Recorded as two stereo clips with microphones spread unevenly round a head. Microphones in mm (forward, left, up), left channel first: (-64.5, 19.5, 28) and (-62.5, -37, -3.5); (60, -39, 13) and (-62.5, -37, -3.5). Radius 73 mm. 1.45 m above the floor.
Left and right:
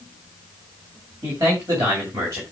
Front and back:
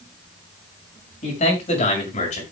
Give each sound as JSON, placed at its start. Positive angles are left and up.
{"t": 1.2, "sound": "a man speaking", "azimuth_deg": -25, "distance_m": 6.5}